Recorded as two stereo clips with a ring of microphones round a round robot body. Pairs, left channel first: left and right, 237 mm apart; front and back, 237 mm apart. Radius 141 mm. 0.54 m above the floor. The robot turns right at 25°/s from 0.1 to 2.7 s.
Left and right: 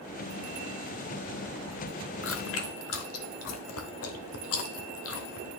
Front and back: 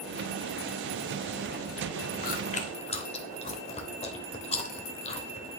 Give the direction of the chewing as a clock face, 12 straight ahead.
10 o'clock.